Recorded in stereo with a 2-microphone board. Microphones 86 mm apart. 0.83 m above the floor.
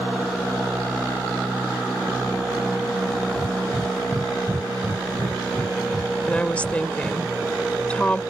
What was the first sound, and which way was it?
Breathing, 30° right (ahead or behind).